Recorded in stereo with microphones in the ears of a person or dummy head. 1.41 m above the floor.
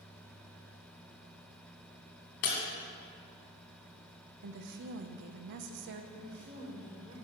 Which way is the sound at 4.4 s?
60° right (ahead or behind).